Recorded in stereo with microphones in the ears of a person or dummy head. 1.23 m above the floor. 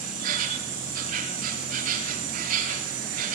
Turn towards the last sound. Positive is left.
turn(degrees=-50)  # may be behind; listen again after turning